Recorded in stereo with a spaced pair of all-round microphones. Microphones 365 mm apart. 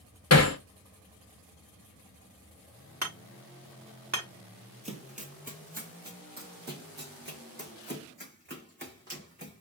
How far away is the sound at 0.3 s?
About 0.7 m.